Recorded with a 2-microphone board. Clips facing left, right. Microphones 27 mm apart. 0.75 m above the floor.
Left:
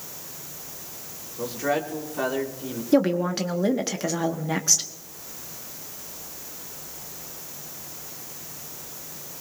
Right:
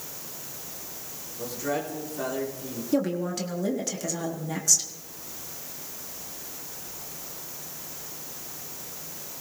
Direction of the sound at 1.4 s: 35° left (ahead or behind).